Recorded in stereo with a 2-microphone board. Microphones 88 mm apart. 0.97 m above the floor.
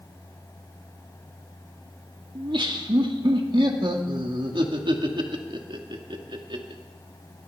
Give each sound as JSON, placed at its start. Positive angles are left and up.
{"t": 2.4, "sound": "laughter", "side_deg": -65, "distance_m": 1.9}